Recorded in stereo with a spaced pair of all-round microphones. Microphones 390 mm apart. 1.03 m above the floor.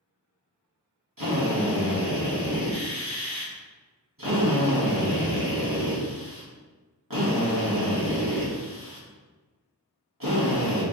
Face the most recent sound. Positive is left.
turn(degrees=-55)  # may be behind; listen again after turning